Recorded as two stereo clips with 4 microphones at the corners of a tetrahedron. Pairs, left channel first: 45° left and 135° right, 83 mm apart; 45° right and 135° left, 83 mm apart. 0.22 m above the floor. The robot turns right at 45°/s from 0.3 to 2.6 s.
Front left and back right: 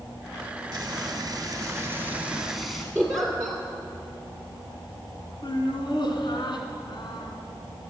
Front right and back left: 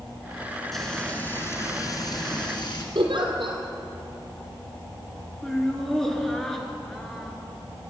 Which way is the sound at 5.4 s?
40° left.